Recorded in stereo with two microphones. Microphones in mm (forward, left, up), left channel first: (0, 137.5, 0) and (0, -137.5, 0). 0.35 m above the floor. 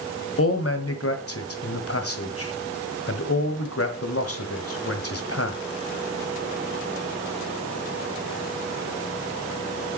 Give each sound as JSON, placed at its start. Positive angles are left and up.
{"t": 0.4, "sound": "a man speaking", "side_deg": 55, "distance_m": 1.7}